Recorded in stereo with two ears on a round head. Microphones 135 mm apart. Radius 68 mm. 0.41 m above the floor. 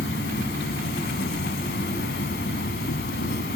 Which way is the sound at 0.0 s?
80° left.